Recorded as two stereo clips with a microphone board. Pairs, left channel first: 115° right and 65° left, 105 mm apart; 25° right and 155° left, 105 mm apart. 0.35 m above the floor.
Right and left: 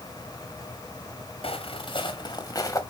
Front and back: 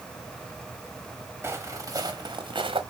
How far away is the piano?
I don't hear a piano.